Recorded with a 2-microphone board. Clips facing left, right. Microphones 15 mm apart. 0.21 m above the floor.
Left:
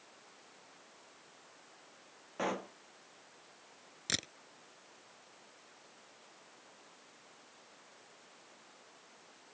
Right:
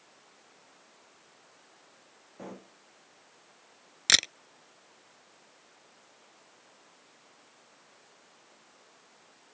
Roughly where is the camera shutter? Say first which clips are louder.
Right 14 dB; right.